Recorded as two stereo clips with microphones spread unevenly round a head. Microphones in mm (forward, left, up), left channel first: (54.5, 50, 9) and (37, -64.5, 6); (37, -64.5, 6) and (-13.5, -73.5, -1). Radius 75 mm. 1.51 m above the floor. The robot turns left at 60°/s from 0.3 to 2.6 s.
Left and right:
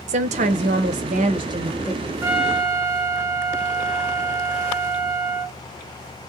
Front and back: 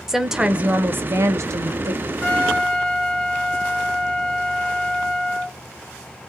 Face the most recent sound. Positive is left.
turn(degrees=-60)